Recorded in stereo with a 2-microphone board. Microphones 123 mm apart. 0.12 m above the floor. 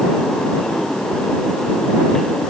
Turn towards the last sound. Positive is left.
No sound to turn to.